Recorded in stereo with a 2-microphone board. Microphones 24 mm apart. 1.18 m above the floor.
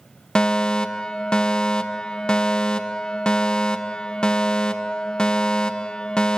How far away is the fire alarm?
About 1.1 m.